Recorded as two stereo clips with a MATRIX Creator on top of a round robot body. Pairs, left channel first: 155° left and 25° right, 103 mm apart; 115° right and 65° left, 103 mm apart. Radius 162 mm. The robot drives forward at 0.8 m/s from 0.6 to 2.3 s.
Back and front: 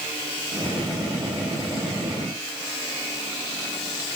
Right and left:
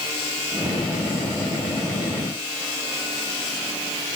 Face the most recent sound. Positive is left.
No sound to turn to.